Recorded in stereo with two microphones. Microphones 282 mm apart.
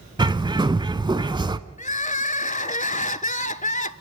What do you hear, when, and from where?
0.2 s a bird: 15° right (ahead or behind), 0.5 m
1.8 s crying: 25° left (ahead or behind), 0.5 m